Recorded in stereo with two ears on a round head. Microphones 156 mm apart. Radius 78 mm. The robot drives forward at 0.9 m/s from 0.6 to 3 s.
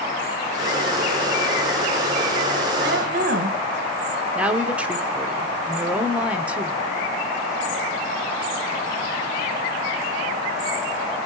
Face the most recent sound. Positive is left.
turn(degrees=-5)  # may be behind; listen again after turning